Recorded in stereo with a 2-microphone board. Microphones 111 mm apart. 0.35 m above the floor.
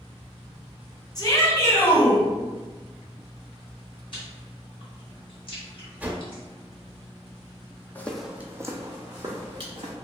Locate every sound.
1.1 s a shout: 35° left (ahead or behind), 1.2 m; by 2.2 s 15° left (ahead or behind), 1.5 m
4.1 s chewing: 45° left (ahead or behind), 1.7 m
6.0 s a whoosh: 15° right (ahead or behind), 0.5 m
8.0 s footsteps: 20° left (ahead or behind), 0.6 m; by 9.9 s 50° right (ahead or behind), 1.6 m